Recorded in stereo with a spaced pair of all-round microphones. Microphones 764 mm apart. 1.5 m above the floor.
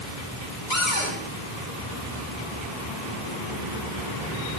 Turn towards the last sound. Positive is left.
turn(degrees=80)